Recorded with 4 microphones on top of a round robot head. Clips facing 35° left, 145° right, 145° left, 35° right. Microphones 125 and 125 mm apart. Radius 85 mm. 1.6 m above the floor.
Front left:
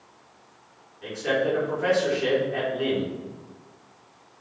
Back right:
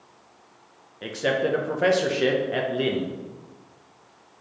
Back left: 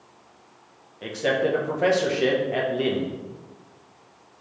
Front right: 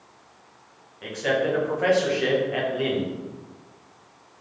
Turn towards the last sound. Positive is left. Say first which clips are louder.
# back right 1 dB, back left 1 dB
turn(degrees=-155)